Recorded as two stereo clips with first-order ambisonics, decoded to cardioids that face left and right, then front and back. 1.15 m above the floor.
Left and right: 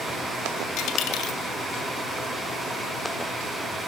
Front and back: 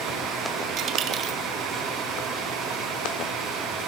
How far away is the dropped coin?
About 1.8 m.